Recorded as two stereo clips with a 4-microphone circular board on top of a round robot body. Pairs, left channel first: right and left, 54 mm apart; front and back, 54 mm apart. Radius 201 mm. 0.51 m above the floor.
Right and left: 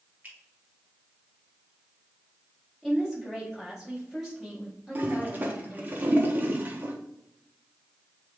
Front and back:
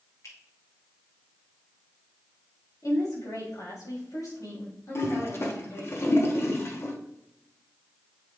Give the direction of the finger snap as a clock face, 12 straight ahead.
11 o'clock.